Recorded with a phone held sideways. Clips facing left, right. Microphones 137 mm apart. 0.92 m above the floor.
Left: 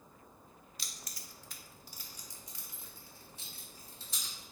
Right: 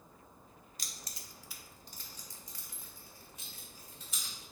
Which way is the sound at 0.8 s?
45° right (ahead or behind).